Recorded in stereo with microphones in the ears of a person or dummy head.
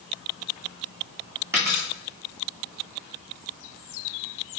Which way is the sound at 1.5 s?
20° right (ahead or behind).